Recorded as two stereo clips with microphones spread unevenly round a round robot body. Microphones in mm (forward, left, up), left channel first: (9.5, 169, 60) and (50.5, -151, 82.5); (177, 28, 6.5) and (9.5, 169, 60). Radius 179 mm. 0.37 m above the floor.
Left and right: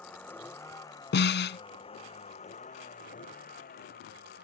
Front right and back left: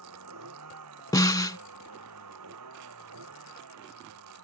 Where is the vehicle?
175° right; by 4.4 s 160° left.